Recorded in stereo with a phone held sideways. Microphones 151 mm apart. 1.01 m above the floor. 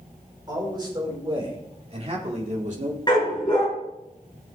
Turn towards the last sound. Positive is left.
turn(degrees=30)  # may be behind; listen again after turning